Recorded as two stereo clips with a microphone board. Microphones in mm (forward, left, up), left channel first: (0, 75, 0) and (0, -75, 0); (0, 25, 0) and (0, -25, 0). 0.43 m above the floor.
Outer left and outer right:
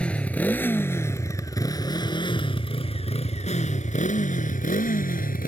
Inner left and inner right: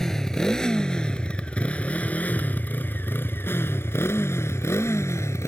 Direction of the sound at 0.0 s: 5° left (ahead or behind).